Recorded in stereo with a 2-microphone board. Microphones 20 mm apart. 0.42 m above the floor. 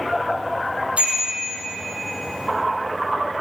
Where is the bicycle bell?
70° right (ahead or behind), 9 m.